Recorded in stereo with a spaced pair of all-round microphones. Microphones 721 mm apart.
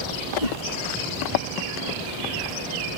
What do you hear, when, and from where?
0.4 s a whoosh: 75° left (ahead or behind)